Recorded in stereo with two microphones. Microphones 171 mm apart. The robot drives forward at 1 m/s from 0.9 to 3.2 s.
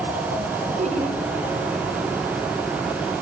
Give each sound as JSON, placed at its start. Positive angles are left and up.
{"t": 0.8, "sound": "laughter", "side_deg": -45, "distance_m": 2.0}